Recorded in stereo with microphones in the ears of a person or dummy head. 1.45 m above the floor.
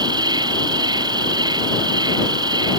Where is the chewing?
No chewing in this recording.